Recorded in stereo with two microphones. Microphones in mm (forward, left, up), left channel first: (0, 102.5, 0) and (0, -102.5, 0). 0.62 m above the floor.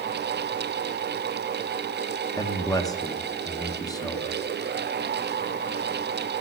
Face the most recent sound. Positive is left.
turn(degrees=15)  # may be behind; listen again after turning